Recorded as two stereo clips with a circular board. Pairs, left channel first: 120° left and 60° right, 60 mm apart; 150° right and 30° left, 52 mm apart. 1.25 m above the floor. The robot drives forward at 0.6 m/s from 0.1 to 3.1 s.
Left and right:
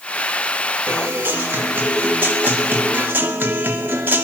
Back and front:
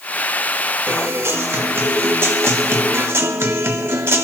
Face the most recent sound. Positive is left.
turn(degrees=0)